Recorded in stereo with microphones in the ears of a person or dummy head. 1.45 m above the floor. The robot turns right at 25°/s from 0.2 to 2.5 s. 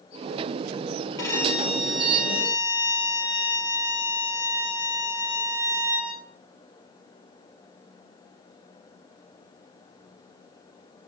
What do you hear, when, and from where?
1.2 s a violin: 160° left, 7.5 m; by 6.1 s 170° right, 7.5 m